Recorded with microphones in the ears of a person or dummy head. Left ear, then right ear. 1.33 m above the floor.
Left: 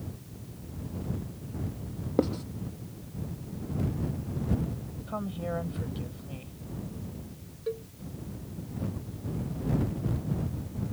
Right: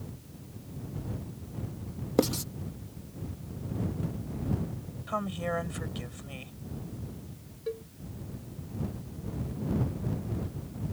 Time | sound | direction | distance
2.2 | writing | 90° right | ?
5.1 | a woman speaking | 60° right (ahead or behind) | ?
7.7 | a cowbell | 10° right (ahead or behind) | ?